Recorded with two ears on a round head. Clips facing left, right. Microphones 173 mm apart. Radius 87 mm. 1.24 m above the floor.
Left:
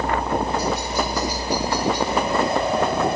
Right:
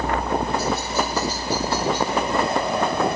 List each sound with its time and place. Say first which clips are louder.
0.0 s a helicopter: left 1 dB; 10° left (ahead or behind)